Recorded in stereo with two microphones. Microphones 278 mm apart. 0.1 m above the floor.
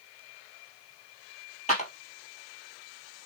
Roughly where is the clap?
Left.